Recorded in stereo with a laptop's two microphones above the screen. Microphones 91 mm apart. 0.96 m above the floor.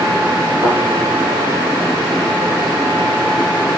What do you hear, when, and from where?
0.6 s a thud: 65° right (ahead or behind), 4 m